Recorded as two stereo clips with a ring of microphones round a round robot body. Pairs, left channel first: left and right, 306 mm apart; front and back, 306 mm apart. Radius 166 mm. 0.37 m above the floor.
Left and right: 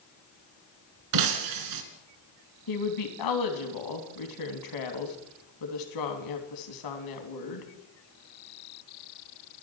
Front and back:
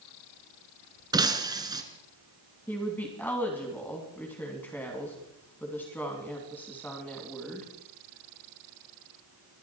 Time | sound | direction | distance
1.1 | breaking glass | 100° right | 1.7 m
2.7 | a woman speaking | 85° left | 3 m